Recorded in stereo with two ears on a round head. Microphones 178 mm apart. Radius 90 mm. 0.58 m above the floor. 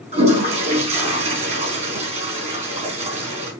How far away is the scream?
I don't hear a scream.